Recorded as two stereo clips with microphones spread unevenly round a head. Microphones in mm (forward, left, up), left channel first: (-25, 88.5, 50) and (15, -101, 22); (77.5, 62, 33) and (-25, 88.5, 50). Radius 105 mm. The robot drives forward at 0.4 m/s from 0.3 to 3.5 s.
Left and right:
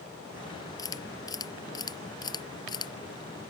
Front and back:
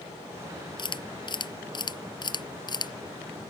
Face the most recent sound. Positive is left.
turn(degrees=35)